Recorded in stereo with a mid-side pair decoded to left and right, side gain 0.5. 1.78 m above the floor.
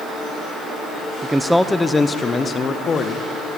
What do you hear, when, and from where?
1.2 s a man speaking: 15° right, 0.9 m; by 3.3 s 50° left, 2.0 m